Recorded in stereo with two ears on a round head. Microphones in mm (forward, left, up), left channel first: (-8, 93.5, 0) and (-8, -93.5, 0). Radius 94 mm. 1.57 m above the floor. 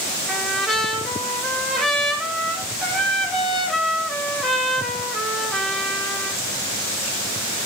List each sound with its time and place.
0.3 s a trumpet: centre (ahead or behind), 2.5 m